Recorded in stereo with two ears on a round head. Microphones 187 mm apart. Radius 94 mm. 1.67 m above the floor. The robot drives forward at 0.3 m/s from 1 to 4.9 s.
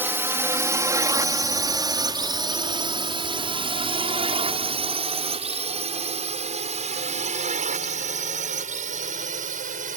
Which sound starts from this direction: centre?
A drone, at 0.0 s.